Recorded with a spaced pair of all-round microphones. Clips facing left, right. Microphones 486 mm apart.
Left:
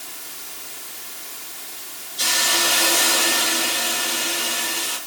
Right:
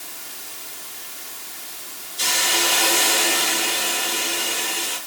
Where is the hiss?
55° left (ahead or behind), 5.5 m.